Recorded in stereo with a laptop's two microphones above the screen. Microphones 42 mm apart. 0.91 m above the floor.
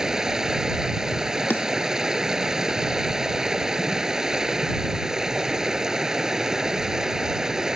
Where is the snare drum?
55° left (ahead or behind).